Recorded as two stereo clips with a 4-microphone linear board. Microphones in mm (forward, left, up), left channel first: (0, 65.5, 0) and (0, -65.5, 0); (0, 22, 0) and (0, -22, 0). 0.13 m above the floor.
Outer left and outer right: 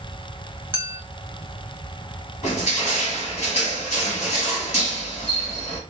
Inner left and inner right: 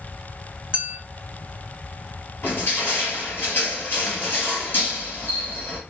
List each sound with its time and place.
0.7 s a clink: 15° right (ahead or behind), 1.1 m
2.4 s crushing: 60° left (ahead or behind), 2.5 m